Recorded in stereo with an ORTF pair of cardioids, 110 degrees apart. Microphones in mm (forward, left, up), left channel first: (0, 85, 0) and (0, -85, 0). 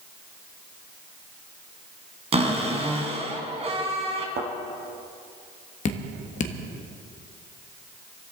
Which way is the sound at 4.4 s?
65° right.